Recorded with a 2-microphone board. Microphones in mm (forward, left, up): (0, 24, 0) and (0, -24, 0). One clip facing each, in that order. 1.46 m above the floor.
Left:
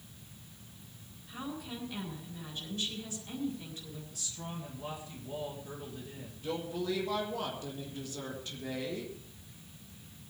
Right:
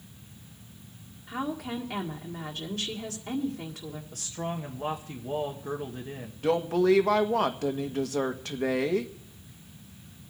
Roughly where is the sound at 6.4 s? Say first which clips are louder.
Right 12 dB; right.